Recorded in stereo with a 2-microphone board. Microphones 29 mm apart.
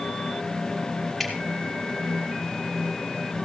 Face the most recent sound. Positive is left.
turn(degrees=-15)  # may be behind; listen again after turning